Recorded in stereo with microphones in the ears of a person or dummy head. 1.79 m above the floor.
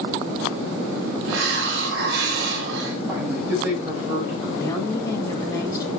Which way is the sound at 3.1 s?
10° right (ahead or behind).